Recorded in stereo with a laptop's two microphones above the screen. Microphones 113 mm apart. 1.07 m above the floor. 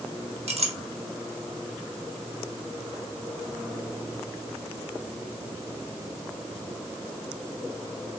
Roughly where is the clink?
Right.